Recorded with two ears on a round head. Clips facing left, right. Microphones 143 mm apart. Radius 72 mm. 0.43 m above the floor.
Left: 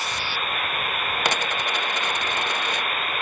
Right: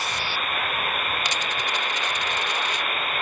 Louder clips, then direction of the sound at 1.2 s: Left 3 dB; 45° left (ahead or behind).